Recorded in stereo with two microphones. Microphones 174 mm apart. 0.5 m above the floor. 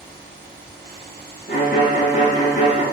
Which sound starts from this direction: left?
A violin, at 1.5 s.